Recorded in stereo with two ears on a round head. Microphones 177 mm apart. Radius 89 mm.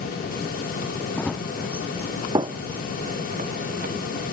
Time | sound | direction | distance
1.2 | running footsteps | 5° left (ahead or behind) | ?